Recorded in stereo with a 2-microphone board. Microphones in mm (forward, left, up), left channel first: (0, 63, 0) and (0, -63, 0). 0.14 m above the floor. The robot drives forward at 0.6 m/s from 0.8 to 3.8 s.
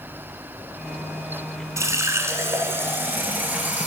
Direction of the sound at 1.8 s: 25° right (ahead or behind).